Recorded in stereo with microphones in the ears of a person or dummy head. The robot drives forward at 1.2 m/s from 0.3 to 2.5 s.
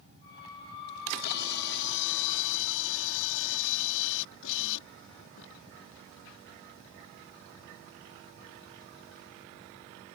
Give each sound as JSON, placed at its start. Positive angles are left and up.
{"t": 0.9, "sound": "a camera shutter", "side_deg": 55}